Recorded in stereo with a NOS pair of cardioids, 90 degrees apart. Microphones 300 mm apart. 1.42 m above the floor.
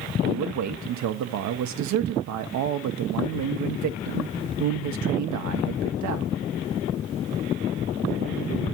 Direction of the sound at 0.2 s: 70° right.